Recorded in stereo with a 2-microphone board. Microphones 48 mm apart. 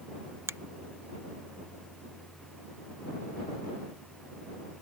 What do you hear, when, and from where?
0.5 s a finger snap: 65° right (ahead or behind)